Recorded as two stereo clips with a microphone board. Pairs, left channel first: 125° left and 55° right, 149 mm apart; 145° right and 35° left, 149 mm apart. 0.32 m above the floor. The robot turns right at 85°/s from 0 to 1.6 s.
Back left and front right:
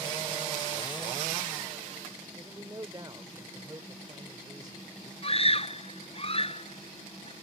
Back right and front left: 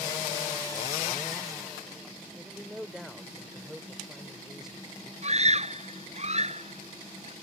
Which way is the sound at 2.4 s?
50° right.